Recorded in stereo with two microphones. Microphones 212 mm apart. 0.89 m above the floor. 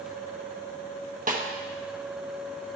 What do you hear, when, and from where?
1.3 s a snare drum: 40° right (ahead or behind), 0.9 m